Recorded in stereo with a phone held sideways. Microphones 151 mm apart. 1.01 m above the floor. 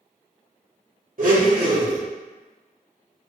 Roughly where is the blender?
Right.